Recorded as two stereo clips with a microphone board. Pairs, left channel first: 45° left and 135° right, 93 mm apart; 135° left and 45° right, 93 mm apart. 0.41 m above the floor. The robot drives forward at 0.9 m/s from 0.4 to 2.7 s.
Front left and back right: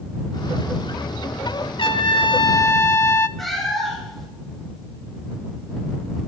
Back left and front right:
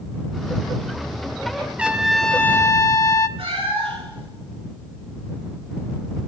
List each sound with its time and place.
1.8 s a trumpet: 30° left, 1.0 m; by 3.3 s 95° left, 0.6 m
3.4 s a cat meowing: 45° right, 3.5 m